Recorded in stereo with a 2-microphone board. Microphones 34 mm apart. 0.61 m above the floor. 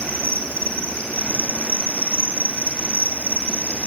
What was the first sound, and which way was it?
An insect, 50° left (ahead or behind).